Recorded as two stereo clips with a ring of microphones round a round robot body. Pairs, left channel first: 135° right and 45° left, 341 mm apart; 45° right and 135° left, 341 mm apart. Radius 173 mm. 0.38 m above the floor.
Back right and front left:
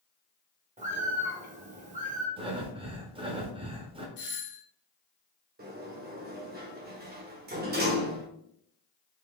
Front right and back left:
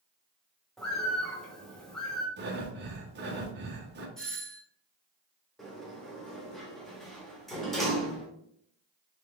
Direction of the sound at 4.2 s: 130° right.